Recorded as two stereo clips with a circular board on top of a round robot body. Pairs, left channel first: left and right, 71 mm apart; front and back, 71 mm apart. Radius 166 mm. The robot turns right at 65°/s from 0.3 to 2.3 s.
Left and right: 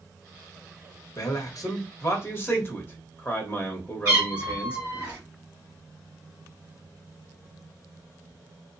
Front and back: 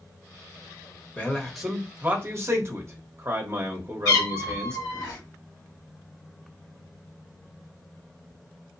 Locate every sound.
1.2 s a man speaking: 65° left, 1.0 m; by 4.8 s 140° left, 1.0 m
4.0 s a cat meowing: 25° right, 0.7 m